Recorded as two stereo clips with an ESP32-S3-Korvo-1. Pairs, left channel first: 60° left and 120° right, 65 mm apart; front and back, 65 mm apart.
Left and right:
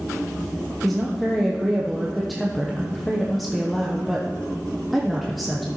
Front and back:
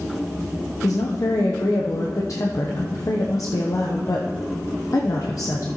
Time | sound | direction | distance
0.8 | a woman speaking | 30° right | 0.8 m